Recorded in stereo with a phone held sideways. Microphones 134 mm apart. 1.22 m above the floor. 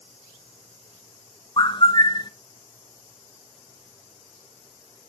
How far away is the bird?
About 0.6 m.